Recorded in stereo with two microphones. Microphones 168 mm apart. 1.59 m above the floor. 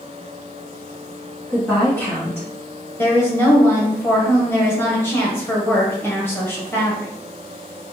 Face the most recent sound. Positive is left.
turn(degrees=15)  # may be behind; listen again after turning